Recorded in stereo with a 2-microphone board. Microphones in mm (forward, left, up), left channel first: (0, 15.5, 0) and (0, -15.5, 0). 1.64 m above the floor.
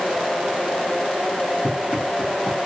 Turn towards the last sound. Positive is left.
turn(degrees=15)  # may be behind; listen again after turning